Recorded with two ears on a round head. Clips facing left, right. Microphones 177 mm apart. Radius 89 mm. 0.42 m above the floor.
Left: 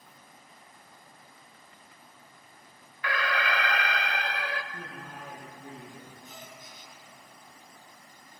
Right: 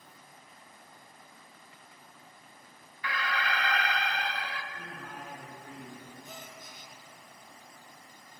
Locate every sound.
3.0 s an alarm: 50° left (ahead or behind), 0.8 m
4.7 s a man speaking: 80° left, 7.5 m
6.2 s a gasp: 40° right (ahead or behind), 3 m